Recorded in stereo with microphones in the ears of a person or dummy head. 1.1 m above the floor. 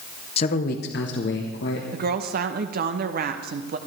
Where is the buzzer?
I don't hear a buzzer.